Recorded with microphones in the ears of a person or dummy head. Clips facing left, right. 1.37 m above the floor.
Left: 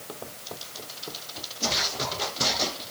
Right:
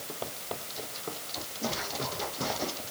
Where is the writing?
I don't hear writing.